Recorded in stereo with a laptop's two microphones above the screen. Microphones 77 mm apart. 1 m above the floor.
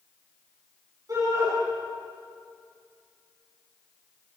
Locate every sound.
1.1 s a shout: 45° right (ahead or behind), 8.5 m